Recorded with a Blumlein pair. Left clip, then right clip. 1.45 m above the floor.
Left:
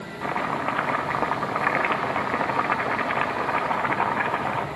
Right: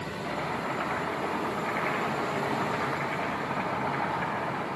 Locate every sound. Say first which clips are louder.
0.2 s chopping: left 7 dB; 45° left, 2 m